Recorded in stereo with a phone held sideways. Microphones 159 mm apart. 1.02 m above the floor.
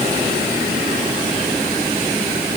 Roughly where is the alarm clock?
No alarm clock in this recording.